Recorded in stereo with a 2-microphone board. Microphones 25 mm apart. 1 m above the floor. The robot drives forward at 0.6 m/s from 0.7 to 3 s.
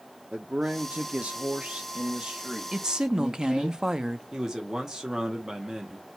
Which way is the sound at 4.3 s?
15° right (ahead or behind).